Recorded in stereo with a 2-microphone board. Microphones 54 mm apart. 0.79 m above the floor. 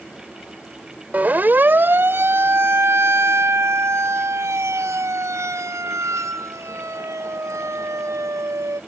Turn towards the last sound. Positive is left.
turn(degrees=-75)  # may be behind; listen again after turning